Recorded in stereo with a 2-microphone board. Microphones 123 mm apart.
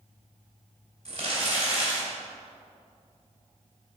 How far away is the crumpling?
About 2.5 m.